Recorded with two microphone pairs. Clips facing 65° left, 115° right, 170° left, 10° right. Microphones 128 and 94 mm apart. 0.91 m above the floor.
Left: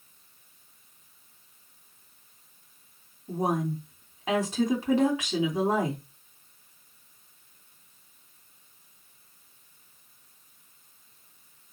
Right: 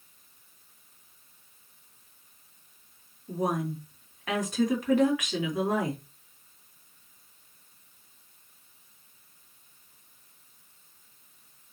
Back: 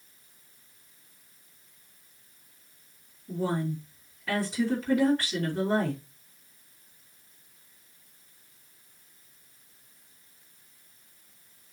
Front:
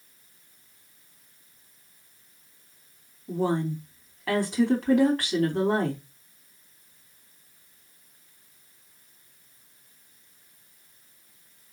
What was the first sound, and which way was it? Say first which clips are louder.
A woman speaking: left 2 dB, front 4 dB; 5° left.